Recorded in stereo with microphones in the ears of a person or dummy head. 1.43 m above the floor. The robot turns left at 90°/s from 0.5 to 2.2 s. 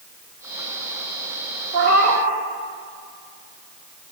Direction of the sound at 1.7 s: 80° right.